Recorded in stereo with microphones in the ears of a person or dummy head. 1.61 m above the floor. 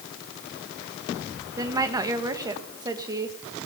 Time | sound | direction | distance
1.6 | a woman speaking | 20° right (ahead or behind) | 2.5 m